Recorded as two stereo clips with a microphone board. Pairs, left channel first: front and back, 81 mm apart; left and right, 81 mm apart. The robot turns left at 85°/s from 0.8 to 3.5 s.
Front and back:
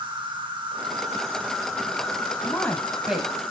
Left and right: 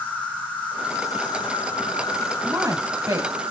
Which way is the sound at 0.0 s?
160° left.